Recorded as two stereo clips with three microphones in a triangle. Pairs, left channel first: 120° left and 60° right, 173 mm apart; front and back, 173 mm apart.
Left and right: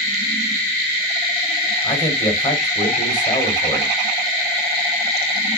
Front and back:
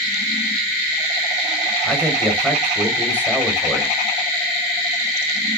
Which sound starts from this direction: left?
A man speaking, at 1.8 s.